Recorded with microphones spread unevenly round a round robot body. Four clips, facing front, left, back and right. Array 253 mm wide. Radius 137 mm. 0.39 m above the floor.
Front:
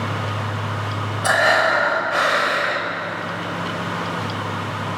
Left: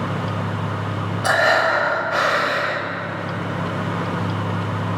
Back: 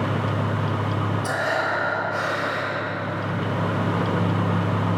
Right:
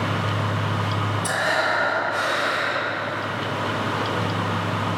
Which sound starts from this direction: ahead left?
Breathing, at 1.2 s.